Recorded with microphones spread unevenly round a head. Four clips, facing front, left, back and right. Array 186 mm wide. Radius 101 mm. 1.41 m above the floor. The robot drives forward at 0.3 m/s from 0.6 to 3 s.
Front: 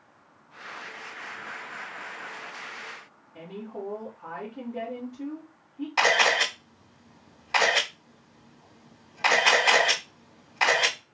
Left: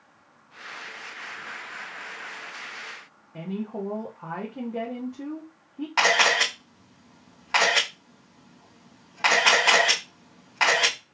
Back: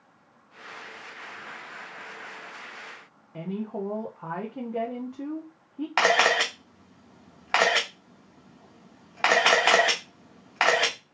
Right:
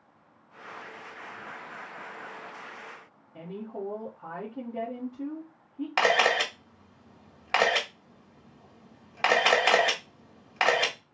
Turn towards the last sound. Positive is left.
turn(degrees=-150)